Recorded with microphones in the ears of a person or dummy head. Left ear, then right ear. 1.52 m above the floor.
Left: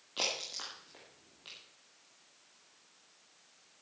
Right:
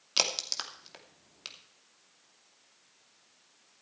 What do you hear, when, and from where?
0.2 s a crack: 70° right (ahead or behind), 2.5 m